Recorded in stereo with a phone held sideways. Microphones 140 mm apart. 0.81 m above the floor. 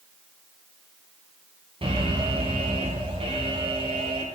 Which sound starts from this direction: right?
An alarm, at 1.8 s.